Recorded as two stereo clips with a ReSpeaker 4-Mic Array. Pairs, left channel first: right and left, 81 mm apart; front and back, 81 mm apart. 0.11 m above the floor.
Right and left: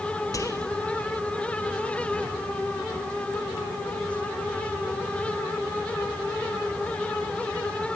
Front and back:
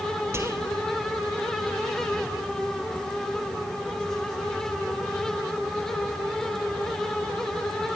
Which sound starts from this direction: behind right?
Whispering, at 0.3 s.